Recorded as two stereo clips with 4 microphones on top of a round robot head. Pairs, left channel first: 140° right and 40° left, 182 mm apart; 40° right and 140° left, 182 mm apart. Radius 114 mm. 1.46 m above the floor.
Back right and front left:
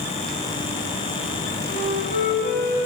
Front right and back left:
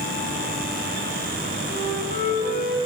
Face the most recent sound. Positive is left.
turn(degrees=-95)